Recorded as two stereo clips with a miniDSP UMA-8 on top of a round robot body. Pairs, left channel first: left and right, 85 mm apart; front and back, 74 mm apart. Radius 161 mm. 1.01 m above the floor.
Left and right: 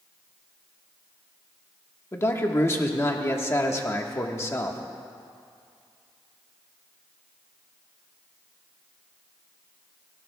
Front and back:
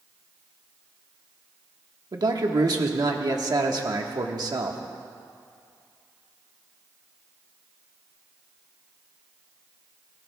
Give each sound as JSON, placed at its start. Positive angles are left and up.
{"t": 2.1, "sound": "a man speaking", "azimuth_deg": 150, "distance_m": 1.5}